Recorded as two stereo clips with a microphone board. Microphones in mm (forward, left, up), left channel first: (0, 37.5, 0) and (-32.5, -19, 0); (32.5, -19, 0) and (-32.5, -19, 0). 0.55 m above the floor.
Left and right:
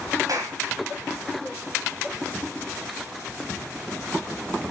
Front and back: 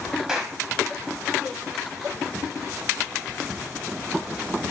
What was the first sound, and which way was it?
A clap, 95° right.